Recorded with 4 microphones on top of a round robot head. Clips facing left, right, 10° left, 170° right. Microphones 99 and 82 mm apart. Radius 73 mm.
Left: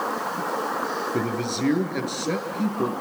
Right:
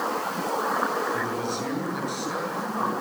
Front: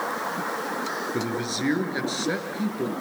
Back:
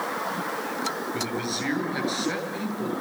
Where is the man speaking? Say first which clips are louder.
Left 2 dB, front 2 dB; 65° left, 8.5 m.